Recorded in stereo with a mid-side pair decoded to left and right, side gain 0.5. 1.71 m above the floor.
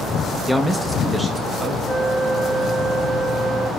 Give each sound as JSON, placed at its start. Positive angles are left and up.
{"t": 0.5, "sound": "a man speaking", "azimuth_deg": -5, "distance_m": 0.7}
{"t": 1.9, "sound": "a flute", "azimuth_deg": 15, "distance_m": 1.6}